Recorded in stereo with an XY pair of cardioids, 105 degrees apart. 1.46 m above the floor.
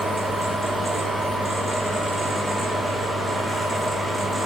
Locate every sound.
0.0 s a fan: 15° right, 1.4 m